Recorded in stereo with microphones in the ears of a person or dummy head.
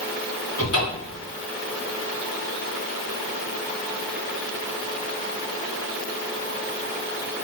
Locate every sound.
0.6 s a cupboard door: 85° left, 2 m